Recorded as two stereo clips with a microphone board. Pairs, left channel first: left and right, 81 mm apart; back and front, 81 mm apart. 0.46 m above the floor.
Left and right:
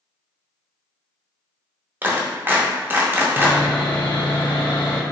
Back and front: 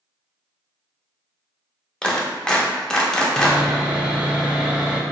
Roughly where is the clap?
Right.